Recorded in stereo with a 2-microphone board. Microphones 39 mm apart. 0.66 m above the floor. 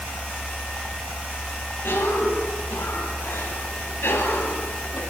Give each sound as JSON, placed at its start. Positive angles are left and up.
{"t": 1.8, "sound": "a cough", "side_deg": 80, "distance_m": 5.0}